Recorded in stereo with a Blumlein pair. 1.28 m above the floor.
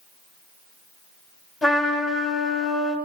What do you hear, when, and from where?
1.6 s a trumpet: 10° left, 2.5 m